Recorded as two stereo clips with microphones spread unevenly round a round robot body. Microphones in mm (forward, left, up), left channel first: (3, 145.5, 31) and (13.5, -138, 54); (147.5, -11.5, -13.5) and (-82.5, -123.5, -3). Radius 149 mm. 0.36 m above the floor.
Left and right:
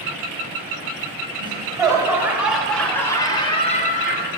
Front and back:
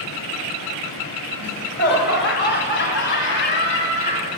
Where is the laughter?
15° right, 2.5 m; by 4.3 s 65° left, 1.5 m.